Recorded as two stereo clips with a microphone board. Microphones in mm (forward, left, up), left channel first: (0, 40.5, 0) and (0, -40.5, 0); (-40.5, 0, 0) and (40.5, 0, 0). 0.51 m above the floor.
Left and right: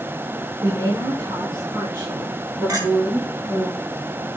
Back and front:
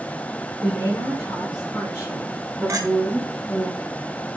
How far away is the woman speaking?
About 6 m.